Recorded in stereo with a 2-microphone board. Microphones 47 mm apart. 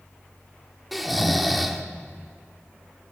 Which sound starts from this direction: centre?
Snoring, at 0.9 s.